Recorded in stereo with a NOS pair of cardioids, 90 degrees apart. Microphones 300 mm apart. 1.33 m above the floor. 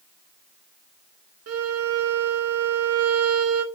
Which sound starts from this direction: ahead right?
A violin, at 1.5 s.